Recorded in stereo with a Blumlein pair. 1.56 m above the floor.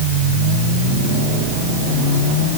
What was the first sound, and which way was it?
Only background noise.